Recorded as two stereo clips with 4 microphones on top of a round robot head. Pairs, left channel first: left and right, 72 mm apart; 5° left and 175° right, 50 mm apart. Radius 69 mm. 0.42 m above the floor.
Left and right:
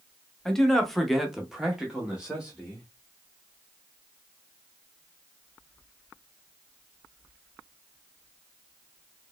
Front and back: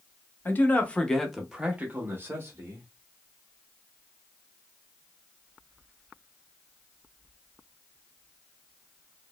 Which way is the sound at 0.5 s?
10° left.